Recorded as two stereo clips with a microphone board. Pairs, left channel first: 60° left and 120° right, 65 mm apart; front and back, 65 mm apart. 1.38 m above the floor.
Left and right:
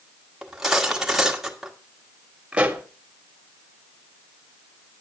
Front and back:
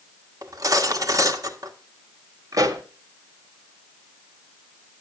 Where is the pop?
165° left, 1.7 m.